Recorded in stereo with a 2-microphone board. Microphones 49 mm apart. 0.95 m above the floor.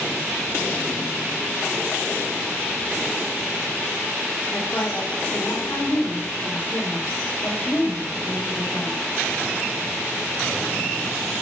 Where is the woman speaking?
65° left (ahead or behind), 3.5 m.